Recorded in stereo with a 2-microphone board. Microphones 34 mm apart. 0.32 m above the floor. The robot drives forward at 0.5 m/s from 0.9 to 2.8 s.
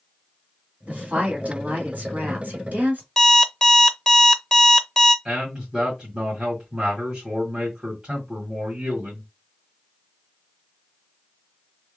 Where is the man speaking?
20° right (ahead or behind), 1.9 m.